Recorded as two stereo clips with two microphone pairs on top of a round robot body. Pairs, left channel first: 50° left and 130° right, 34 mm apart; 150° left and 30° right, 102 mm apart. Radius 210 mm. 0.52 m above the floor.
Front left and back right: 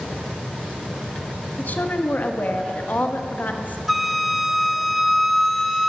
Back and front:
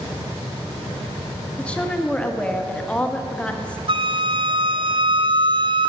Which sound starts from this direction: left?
A woman speaking, at 1.6 s.